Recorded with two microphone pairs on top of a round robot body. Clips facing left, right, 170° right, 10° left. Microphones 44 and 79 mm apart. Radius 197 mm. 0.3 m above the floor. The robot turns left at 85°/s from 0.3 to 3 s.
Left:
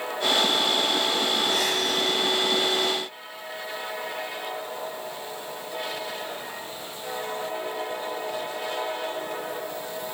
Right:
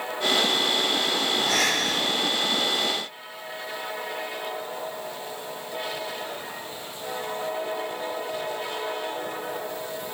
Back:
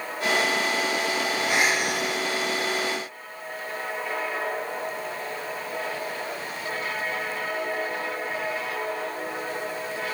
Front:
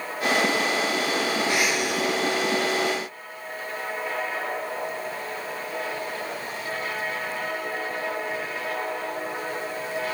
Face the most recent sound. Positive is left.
turn(degrees=135)